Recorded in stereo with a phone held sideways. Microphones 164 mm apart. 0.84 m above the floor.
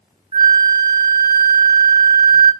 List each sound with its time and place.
0.3 s a flute: 30° right (ahead or behind), 0.6 m